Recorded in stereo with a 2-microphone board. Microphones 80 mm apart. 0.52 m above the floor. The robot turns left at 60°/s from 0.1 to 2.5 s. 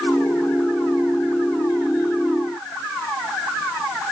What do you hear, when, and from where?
Only background noise.